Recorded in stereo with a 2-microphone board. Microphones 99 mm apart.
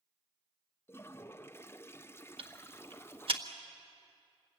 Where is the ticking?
60° right (ahead or behind), 1.5 m.